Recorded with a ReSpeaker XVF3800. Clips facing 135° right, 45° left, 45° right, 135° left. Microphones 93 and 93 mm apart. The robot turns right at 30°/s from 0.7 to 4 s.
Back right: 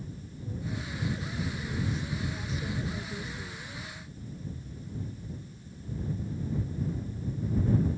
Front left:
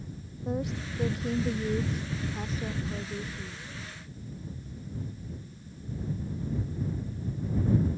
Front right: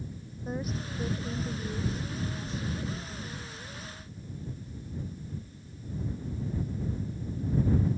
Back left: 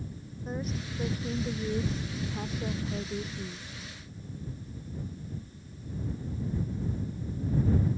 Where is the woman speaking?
45° left; by 3.7 s 130° left.